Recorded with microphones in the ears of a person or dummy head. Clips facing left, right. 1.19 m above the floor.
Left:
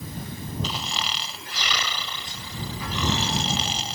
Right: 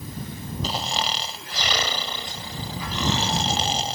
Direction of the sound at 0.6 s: 40° right (ahead or behind).